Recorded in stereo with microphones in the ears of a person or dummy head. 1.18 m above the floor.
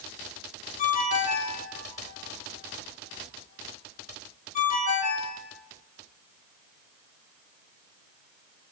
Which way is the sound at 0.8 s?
45° left (ahead or behind).